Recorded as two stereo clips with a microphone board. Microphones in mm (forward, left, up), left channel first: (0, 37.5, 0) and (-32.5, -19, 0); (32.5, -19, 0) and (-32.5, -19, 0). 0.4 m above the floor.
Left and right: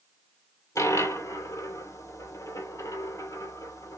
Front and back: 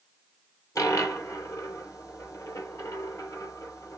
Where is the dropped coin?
35° left, 1.8 m.